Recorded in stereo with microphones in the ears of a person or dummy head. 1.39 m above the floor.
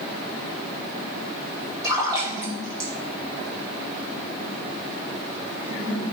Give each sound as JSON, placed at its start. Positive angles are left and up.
{"t": 1.8, "sound": "a splash", "side_deg": -25, "distance_m": 2.5}